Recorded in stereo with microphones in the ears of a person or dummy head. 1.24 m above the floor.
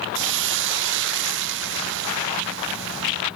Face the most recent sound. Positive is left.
turn(degrees=-65)  # may be behind; listen again after turning